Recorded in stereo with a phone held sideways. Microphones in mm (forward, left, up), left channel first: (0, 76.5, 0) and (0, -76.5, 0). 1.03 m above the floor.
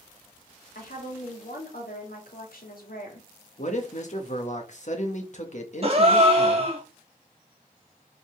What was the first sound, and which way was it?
A woman speaking, 70° left (ahead or behind).